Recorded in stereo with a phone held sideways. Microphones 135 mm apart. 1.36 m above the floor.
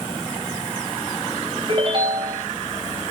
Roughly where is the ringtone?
Right.